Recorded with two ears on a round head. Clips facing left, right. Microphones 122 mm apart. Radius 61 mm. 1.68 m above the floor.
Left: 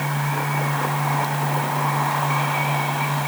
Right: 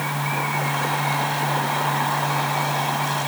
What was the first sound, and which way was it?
Only background noise.